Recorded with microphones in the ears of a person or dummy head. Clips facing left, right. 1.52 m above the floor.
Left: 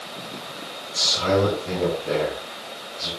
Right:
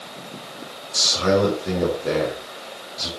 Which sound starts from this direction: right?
A man speaking, at 0.9 s.